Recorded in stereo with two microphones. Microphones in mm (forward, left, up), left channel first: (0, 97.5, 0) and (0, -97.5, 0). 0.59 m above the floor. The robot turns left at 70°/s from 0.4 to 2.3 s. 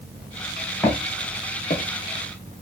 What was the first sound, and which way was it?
Footsteps, 5° left (ahead or behind).